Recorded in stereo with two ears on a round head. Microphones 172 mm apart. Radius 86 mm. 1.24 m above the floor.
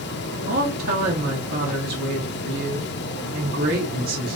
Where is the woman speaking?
50° right (ahead or behind), 1.4 m.